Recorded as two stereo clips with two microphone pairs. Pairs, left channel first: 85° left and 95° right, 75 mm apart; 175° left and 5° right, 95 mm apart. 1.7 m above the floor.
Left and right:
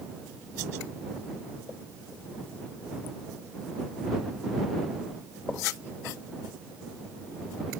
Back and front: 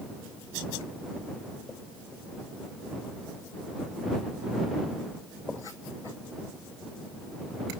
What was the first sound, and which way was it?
Only background noise.